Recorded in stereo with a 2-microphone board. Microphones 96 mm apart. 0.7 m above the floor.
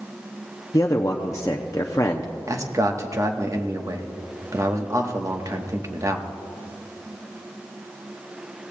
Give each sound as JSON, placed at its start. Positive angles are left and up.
{"t": 0.7, "sound": "a man speaking", "side_deg": 35, "distance_m": 0.6}
{"t": 2.5, "sound": "a man speaking", "side_deg": -35, "distance_m": 1.1}